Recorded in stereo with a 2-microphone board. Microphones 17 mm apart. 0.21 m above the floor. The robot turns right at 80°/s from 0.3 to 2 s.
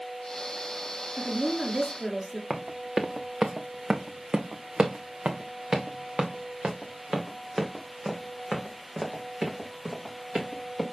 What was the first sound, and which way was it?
A woman speaking, 90° right.